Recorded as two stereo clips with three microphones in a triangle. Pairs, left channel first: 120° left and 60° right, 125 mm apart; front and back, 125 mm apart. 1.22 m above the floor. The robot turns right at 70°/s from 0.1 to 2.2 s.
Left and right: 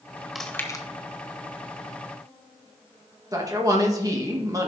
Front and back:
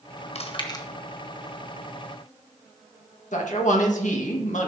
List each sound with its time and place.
0.3 s chewing: 30° left, 1.1 m; by 0.8 s 65° left, 1.1 m
3.3 s a man speaking: straight ahead, 1.6 m